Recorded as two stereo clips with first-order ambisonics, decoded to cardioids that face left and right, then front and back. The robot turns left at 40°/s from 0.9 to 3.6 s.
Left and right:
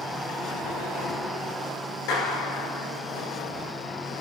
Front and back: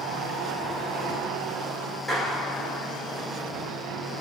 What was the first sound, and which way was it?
A clap, 90° left.